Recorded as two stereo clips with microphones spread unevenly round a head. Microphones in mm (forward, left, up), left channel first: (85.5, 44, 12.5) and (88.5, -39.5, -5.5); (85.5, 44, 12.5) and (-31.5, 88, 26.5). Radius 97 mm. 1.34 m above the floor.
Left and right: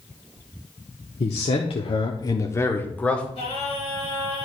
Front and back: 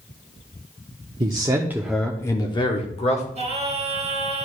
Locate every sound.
1.2 s a man speaking: 110° left, 1.0 m; by 3.2 s 10° left, 1.4 m
3.4 s singing: 120° left, 2.5 m